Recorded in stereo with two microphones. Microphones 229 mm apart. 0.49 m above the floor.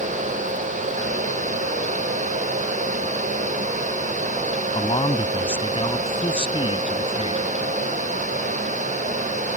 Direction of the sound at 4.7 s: 25° left (ahead or behind).